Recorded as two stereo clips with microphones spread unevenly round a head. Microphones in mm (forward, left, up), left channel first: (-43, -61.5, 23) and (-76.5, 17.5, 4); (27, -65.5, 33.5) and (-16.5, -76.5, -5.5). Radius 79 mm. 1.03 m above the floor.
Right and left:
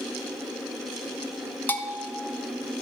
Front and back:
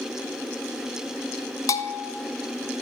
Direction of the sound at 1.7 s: Straight ahead.